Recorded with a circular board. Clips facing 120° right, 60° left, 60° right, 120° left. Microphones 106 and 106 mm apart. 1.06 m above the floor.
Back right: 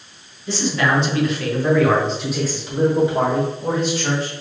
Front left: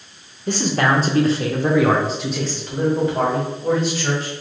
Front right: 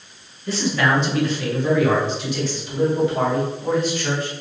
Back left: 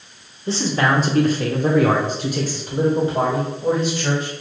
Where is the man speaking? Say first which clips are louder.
Front left 1 dB, back left 1 dB; 65° left, 0.8 m; by 4.3 s straight behind, 1.6 m.